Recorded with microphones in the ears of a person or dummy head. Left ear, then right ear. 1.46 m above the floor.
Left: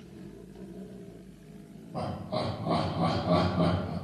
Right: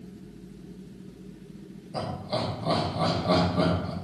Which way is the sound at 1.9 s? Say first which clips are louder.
Right 2 dB; 75° right (ahead or behind).